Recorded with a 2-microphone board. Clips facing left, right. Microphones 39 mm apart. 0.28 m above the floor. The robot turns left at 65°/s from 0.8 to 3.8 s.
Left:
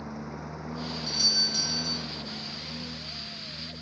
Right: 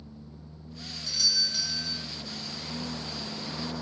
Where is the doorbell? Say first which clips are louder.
Right 1 dB; 25° left; by 2.1 s 40° right.